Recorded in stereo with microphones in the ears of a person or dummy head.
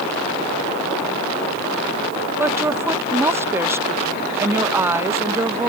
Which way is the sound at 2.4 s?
10° right (ahead or behind).